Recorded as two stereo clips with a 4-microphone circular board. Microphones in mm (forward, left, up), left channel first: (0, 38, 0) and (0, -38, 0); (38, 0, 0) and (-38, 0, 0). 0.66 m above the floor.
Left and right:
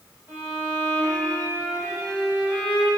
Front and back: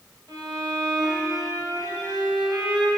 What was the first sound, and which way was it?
A violin, 150° right.